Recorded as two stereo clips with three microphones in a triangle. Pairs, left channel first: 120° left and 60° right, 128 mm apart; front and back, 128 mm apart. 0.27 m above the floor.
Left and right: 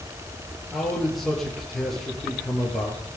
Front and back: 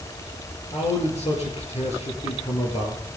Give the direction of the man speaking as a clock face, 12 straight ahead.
11 o'clock.